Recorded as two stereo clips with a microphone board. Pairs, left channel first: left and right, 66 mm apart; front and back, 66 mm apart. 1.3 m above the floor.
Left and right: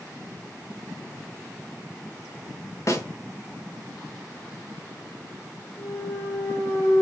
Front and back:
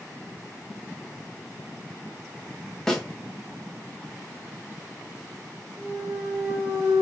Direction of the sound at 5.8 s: 100° left.